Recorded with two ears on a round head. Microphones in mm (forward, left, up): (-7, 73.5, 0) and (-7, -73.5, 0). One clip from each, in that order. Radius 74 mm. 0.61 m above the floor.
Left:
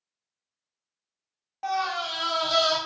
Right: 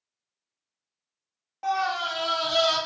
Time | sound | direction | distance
1.6 | a scream | 15° left (ahead or behind) | 0.6 m